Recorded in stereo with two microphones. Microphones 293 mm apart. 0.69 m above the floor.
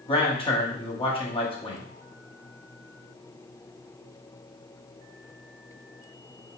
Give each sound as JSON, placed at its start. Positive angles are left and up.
{"t": 0.1, "sound": "a man speaking", "side_deg": 20, "distance_m": 1.3}